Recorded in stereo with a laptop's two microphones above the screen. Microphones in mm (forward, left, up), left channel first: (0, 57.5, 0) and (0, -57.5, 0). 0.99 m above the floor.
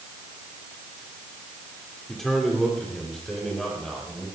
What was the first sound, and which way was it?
A man speaking, 5° left (ahead or behind).